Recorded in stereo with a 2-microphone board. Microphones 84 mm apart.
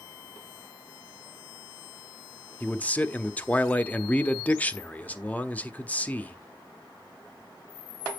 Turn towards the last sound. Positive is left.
turn(degrees=15)  # may be behind; listen again after turning